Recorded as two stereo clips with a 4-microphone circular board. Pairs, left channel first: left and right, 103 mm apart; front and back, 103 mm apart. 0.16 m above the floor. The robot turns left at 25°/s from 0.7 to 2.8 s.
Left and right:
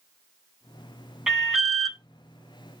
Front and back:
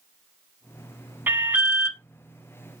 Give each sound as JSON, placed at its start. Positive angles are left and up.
{"t": 1.3, "sound": "an alarm", "azimuth_deg": -165, "distance_m": 1.0}